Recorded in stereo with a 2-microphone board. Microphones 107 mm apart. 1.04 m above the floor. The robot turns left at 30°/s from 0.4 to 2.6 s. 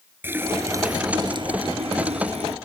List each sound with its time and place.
0.2 s a running tap: 20° right; by 2.5 s 85° right